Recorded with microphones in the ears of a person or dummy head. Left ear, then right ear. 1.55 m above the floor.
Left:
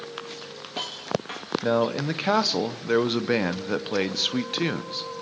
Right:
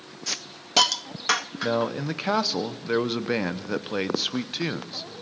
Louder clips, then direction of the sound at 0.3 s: Right 5 dB; 50° right (ahead or behind).